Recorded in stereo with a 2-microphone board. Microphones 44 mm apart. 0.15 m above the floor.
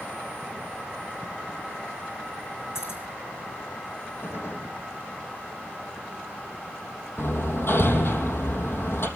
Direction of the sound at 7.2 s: 60° left (ahead or behind).